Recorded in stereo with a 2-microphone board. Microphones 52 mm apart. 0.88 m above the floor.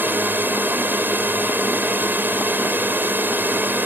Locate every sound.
0.0 s a drone: 40° right (ahead or behind)